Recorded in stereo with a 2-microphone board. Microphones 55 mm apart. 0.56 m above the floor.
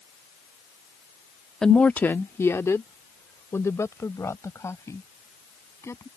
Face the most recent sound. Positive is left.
turn(degrees=60)  # may be behind; listen again after turning